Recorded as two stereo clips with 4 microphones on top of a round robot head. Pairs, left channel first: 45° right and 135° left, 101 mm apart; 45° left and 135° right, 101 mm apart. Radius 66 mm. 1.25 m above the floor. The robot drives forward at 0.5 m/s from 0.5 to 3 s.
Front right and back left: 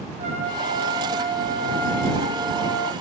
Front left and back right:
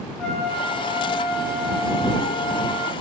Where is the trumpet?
125° left, 4 m; by 2.9 s 140° left, 5 m.